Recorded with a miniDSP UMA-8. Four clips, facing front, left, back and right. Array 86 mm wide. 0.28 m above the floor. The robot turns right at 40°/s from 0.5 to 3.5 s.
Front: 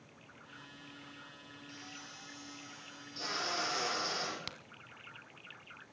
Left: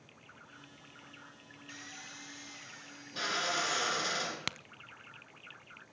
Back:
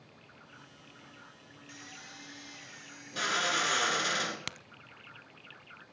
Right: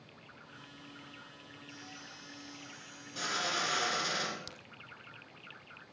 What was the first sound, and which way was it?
A drill, 110° left.